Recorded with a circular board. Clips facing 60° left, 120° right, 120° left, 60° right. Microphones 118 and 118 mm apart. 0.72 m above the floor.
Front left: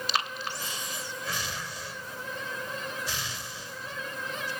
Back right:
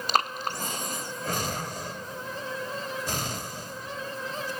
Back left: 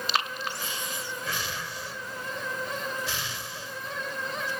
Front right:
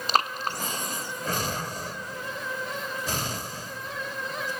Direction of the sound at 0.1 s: 95° right.